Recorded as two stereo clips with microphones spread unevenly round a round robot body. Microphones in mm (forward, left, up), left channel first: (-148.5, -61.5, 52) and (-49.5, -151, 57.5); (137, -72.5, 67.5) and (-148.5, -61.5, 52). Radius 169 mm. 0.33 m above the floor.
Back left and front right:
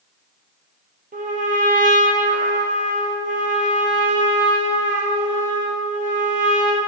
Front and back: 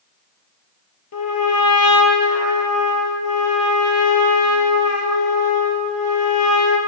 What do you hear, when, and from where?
1.1 s a trumpet: 35° right, 1.7 m